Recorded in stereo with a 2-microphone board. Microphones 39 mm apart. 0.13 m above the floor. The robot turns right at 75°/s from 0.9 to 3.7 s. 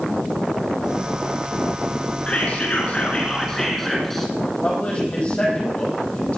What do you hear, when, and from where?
2.3 s whispering: 60° left, 1.5 m; by 4.3 s 165° left, 1.5 m
4.6 s a man speaking: 30° left (ahead or behind), 5 m